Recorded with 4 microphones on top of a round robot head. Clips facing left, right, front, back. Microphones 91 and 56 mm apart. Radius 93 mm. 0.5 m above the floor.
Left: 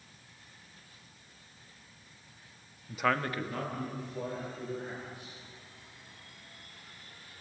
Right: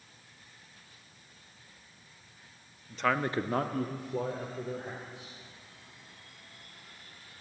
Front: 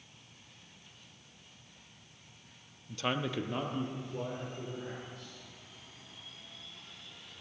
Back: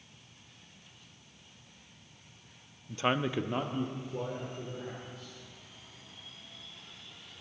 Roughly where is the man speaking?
Behind left.